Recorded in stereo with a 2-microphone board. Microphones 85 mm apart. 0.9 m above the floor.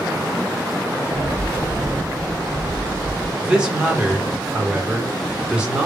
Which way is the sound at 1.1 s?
10° left (ahead or behind).